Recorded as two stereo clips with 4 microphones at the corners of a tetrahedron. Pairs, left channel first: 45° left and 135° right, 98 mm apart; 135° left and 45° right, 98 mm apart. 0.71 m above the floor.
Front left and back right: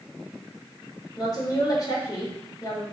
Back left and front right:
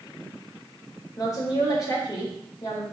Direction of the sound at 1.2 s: 90° left.